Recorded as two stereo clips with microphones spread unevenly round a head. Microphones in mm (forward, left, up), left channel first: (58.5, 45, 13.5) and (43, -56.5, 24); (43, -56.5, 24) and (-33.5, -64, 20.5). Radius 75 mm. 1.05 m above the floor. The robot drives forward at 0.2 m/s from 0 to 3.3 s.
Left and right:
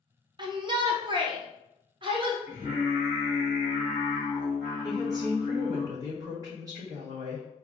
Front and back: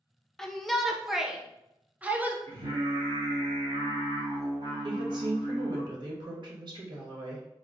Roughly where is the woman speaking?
Behind.